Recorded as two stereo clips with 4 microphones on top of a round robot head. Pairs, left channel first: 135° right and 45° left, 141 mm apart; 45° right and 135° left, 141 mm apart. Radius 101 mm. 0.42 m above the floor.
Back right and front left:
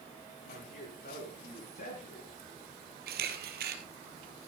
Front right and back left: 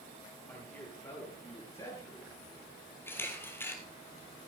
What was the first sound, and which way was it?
A man speaking, 125° right.